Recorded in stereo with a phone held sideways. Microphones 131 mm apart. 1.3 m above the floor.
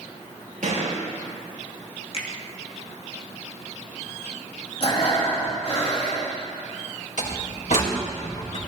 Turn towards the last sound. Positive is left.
turn(degrees=75)  # may be behind; listen again after turning